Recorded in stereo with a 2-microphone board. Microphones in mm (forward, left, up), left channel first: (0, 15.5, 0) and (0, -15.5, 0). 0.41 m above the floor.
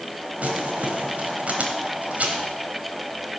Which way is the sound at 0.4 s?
50° right (ahead or behind).